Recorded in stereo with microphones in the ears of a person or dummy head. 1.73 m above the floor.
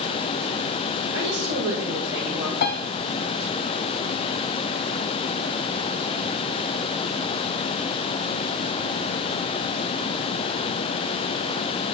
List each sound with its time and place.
1.1 s a woman speaking: 80° right, 5 m
2.6 s a piano: 50° left (ahead or behind), 1.0 m